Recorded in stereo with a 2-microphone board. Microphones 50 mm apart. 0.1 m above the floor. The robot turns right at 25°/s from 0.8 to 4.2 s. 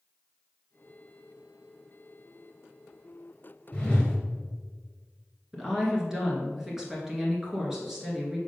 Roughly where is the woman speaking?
Centre.